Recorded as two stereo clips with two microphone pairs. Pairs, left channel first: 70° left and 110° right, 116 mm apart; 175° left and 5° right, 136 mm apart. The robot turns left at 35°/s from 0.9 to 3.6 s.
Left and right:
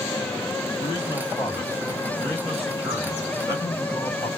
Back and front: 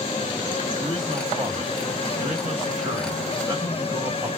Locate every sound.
0.8 s a man speaking: 35° left, 2 m; by 4.3 s 60° right, 2 m